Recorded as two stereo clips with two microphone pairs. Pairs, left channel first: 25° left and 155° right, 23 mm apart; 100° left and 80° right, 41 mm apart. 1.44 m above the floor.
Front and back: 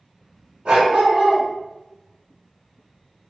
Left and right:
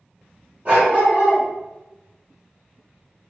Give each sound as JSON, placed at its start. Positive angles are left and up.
{"t": 0.7, "sound": "a dog barking", "azimuth_deg": -135, "distance_m": 2.0}